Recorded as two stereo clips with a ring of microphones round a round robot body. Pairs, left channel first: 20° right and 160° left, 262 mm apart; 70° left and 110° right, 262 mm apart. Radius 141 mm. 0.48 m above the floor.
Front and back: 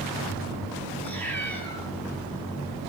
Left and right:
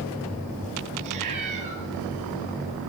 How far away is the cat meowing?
About 7.5 m.